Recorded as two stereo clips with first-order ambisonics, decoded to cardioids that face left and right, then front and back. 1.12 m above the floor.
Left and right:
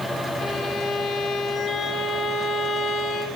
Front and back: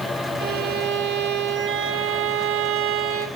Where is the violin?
165° left, 2.5 m.